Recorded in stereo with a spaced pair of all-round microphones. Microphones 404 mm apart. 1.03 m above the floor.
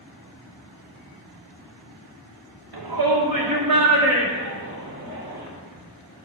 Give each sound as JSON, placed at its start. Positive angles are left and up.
{"t": 2.7, "sound": "a shout", "side_deg": -65, "distance_m": 0.8}